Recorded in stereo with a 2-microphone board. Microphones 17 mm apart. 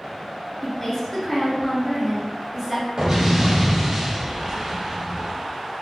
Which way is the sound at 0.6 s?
25° left (ahead or behind).